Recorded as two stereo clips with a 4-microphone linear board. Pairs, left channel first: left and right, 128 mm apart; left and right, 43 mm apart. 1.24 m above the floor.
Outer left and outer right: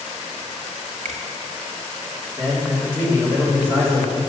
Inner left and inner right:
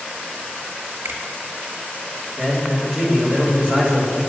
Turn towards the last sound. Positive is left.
turn(degrees=30)  # may be behind; listen again after turning